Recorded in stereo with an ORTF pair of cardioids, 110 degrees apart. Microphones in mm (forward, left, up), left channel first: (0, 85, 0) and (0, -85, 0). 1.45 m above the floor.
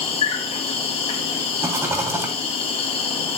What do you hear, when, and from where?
0.0 s an insect: 35° left, 2.5 m
1.6 s a rattle: 15° right, 3 m